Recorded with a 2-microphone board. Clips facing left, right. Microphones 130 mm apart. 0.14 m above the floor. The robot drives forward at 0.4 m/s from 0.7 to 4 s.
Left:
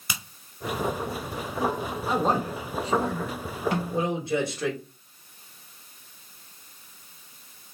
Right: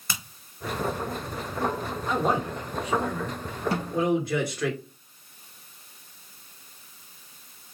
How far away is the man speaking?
About 1.3 m.